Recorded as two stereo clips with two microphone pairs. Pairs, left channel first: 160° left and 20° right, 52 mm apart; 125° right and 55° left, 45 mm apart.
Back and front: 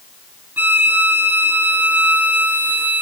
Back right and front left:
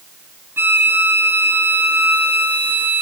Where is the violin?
35° left, 3.5 m.